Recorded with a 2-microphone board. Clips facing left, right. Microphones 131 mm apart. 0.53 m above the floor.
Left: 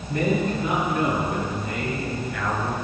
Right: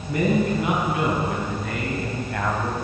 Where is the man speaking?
80° right, 5.5 m; by 2.8 s 50° right (ahead or behind), 3 m.